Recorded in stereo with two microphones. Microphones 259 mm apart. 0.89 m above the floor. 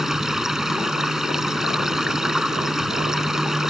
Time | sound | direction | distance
0.0 | running water | centre (ahead or behind) | ?